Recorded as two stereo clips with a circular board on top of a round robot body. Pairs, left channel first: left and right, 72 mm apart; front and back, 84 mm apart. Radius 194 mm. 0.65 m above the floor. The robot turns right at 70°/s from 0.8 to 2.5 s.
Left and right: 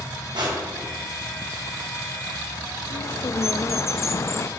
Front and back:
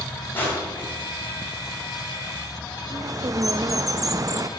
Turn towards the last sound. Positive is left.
turn(degrees=135)